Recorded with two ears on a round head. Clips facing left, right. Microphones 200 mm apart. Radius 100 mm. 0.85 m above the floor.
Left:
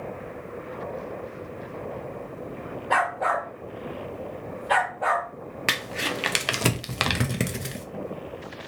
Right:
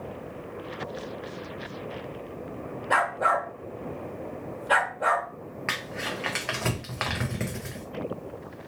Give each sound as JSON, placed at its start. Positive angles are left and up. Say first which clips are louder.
{"t": 2.9, "sound": "a dog barking", "louder": "left 1 dB", "side_deg": -5, "distance_m": 1.2}
{"t": 5.7, "sound": "crumpling", "louder": "left 5 dB", "side_deg": 45, "distance_m": 0.5}